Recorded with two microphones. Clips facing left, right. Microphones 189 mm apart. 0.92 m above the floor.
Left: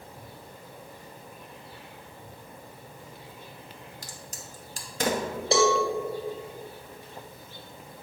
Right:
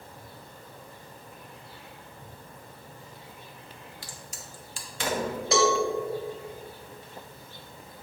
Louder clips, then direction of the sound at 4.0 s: Left 1 dB; 45° left (ahead or behind).